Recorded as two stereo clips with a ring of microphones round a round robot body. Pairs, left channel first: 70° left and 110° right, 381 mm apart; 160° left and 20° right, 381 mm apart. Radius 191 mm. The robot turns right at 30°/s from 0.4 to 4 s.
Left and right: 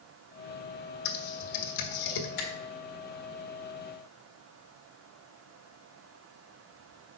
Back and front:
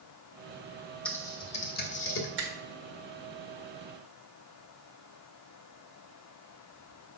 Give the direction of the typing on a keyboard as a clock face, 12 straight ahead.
10 o'clock.